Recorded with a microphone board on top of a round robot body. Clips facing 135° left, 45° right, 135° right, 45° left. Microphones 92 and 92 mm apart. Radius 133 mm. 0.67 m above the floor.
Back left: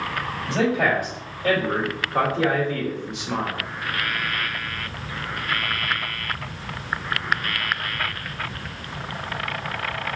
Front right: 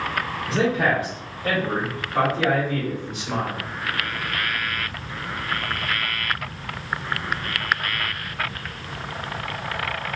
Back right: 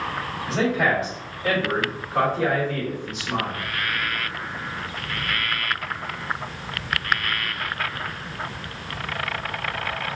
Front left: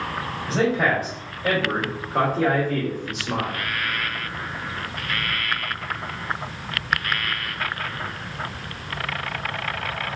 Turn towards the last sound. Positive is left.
turn(degrees=50)